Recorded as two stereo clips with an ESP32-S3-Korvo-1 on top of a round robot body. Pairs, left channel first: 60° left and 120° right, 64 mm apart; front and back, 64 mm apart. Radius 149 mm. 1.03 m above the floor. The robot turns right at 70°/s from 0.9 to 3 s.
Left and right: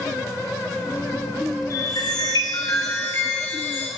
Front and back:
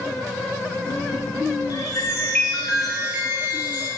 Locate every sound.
1.7 s a chime: 20° left, 4 m; by 3.9 s 110° left, 4 m